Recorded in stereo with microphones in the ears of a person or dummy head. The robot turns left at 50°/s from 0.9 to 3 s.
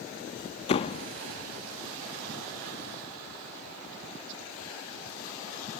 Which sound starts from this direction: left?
A door slam, at 0.7 s.